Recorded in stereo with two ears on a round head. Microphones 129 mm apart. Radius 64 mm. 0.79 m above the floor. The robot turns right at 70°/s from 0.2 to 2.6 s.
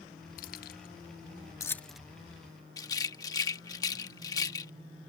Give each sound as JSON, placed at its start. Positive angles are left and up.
{"t": 0.4, "sound": "keys jangling", "side_deg": 60}
{"t": 2.8, "sound": "a rattle", "side_deg": 25}